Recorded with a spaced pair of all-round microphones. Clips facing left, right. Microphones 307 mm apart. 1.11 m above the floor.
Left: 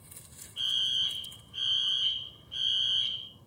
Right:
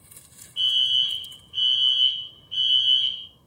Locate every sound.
0.6 s a fire alarm: 35° right (ahead or behind), 1.2 m